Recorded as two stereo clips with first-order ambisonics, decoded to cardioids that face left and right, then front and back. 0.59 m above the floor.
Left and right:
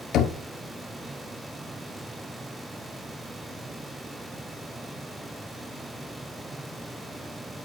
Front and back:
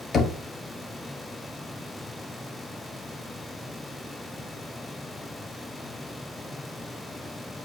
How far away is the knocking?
About 1.1 m.